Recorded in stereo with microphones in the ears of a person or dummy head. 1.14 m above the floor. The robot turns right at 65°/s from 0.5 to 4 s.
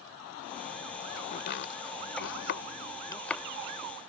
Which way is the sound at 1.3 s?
45° left (ahead or behind).